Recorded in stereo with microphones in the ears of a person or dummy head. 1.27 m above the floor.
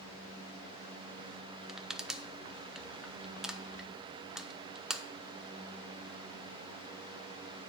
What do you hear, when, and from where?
1.7 s crushing: 5° right (ahead or behind), 0.5 m